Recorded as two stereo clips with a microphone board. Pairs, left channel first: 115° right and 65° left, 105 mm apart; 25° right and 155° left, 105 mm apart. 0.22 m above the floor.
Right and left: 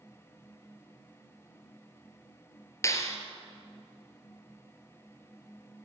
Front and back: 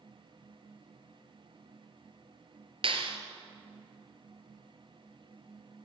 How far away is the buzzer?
I don't hear a buzzer.